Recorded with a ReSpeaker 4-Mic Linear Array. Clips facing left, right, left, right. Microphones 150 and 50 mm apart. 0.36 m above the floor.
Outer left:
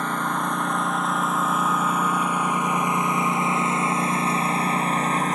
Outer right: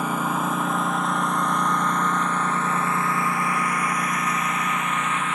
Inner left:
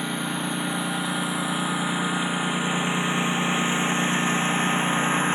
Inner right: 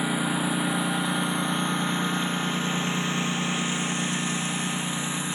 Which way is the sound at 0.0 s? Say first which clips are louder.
Outer right 1 dB, inner right 2 dB; 5° right (ahead or behind).